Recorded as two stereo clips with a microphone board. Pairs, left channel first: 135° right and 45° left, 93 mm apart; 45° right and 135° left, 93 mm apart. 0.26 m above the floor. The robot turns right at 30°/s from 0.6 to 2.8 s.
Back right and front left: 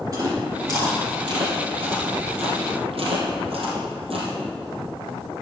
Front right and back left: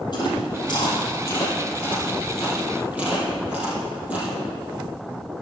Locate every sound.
0.1 s chewing: 5° right, 3.5 m; by 4.3 s 60° left, 3.5 m